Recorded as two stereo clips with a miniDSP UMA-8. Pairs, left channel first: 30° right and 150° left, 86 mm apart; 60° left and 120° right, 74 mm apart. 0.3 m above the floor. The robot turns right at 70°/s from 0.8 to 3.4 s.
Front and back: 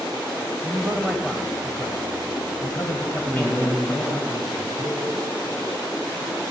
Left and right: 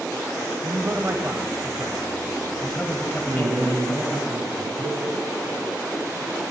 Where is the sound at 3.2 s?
90° right, 1.9 m; by 5.0 s 80° right, 1.9 m.